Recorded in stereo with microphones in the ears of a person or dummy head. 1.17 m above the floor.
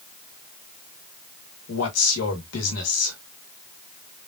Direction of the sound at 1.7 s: 90° left.